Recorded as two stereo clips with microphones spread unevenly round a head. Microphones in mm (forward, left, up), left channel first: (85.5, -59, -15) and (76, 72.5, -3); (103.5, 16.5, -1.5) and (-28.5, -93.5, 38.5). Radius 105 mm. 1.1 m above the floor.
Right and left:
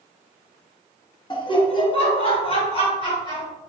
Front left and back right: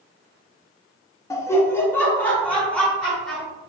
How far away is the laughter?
About 1.1 m.